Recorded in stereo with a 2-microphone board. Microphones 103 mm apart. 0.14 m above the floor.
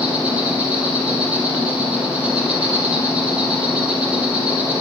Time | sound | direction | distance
0.0 | an insect | 10° right (ahead or behind) | 4 m